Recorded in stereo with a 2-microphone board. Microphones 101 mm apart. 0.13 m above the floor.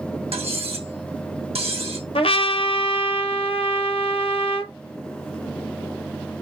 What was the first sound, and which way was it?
Cutlery clinking, 75° right (ahead or behind).